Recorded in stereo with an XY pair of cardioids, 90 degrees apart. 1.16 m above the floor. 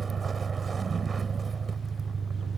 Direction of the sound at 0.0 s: 40° right.